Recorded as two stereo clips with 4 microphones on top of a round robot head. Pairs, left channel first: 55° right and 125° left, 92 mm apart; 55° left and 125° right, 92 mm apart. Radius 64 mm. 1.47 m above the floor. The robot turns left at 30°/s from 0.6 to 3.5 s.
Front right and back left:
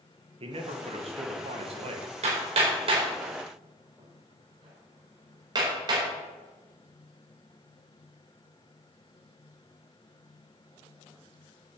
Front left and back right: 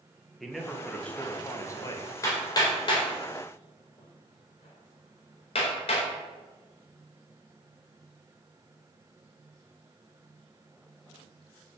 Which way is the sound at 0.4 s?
145° left.